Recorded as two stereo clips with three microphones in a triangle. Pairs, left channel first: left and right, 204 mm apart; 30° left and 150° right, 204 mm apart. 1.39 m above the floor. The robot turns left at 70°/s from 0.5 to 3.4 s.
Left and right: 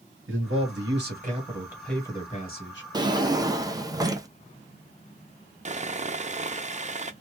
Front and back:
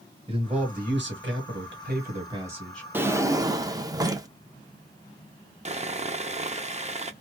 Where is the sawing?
120° right, 0.5 m.